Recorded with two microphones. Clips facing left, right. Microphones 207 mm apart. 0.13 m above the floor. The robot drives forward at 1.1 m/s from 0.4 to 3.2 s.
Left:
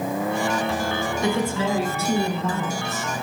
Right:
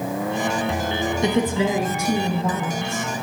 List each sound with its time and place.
1.2 s a woman speaking: 20° right (ahead or behind), 1.2 m; by 3.1 s 10° right (ahead or behind), 3 m